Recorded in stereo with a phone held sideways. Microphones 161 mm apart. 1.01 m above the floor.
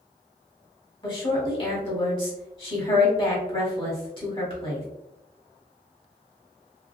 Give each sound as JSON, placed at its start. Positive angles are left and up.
{"t": 1.0, "sound": "a woman speaking", "side_deg": 30, "distance_m": 1.4}